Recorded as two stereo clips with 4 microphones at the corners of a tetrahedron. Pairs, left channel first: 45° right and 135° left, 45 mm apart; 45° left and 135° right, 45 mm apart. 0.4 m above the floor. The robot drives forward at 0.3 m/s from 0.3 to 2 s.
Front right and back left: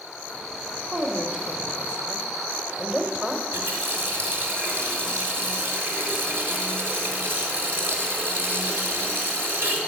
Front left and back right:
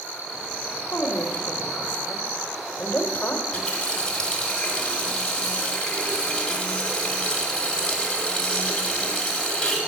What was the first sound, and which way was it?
A woman speaking, 70° left.